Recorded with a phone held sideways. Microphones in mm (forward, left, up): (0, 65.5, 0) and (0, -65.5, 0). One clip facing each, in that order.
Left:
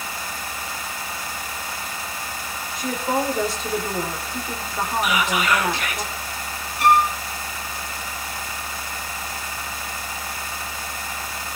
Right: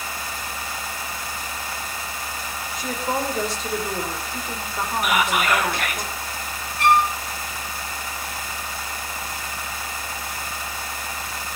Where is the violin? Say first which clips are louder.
Left 1 dB; 10° left (ahead or behind), 5 m.